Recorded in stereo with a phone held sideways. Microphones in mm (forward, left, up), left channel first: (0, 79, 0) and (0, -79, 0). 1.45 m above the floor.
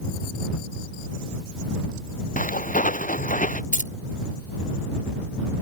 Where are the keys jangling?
55° left (ahead or behind).